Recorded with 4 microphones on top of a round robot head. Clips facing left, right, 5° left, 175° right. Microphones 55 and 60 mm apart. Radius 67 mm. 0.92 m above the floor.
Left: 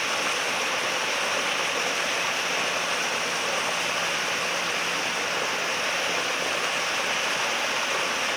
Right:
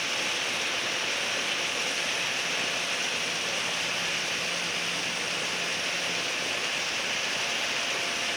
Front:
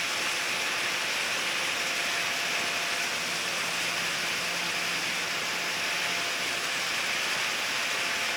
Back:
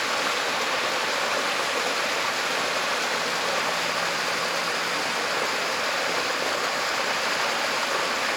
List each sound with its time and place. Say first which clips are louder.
0.0 s running water: left 4 dB, back 6 dB; 155° left